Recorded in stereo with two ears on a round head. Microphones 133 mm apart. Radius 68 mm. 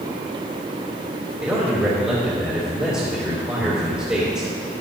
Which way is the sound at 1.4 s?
10° right (ahead or behind).